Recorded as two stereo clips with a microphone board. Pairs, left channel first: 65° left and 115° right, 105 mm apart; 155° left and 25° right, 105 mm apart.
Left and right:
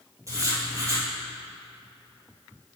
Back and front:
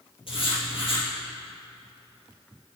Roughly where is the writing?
Behind.